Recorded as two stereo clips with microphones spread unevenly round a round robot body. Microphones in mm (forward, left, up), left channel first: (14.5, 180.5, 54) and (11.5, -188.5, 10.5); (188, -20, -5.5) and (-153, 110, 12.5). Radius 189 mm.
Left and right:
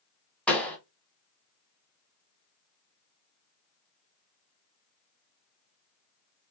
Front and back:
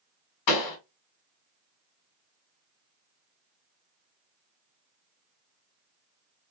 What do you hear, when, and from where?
0.5 s a pop: straight ahead, 1.2 m